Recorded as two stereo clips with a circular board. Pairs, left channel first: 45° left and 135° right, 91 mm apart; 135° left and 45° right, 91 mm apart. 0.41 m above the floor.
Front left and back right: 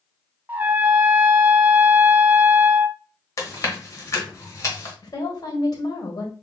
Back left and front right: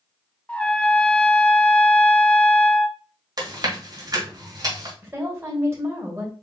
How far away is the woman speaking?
About 1.7 m.